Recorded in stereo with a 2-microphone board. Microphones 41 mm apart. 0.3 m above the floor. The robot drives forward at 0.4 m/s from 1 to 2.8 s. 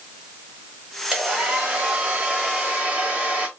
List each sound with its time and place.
1.1 s a hair dryer: 20° right (ahead or behind), 1.0 m; by 3.5 s 25° right (ahead or behind), 0.7 m